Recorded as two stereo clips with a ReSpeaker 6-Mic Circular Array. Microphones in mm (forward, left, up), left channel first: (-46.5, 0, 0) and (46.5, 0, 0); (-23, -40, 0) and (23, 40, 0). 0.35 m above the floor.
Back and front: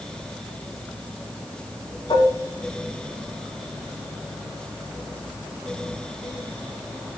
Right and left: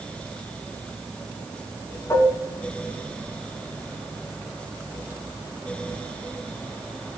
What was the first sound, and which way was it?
Dishes clattering, 175° right.